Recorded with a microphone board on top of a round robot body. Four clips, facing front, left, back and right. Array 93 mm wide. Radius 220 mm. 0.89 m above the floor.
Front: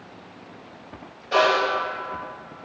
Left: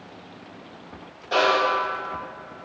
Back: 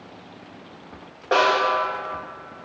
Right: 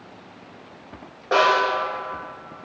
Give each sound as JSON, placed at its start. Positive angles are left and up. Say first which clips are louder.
{"t": 1.3, "sound": "a snare drum", "louder": "right 2 dB, back 1 dB", "azimuth_deg": -145, "distance_m": 0.7}